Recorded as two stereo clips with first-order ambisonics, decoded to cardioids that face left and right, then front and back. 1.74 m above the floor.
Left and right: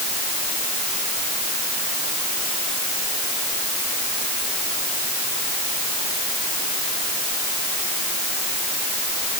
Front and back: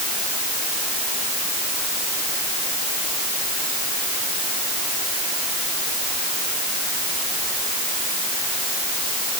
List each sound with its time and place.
Only background noise.